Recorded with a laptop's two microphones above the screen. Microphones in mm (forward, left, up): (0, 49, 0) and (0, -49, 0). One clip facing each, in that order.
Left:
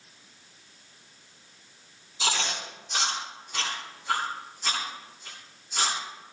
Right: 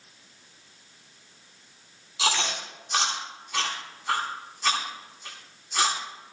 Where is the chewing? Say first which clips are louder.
Right 2 dB; 85° right, 9.5 m.